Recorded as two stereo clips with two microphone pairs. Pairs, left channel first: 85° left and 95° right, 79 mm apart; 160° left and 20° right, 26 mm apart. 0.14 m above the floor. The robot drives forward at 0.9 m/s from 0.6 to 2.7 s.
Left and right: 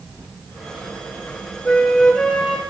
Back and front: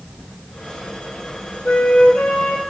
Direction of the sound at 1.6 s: 160° left.